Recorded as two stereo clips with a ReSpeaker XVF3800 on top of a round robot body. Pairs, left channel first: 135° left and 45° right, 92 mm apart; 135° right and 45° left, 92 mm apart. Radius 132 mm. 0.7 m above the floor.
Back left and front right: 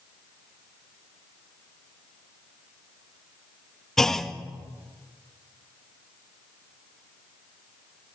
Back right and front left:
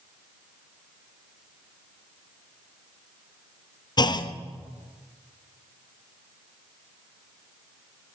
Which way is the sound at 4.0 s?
140° right.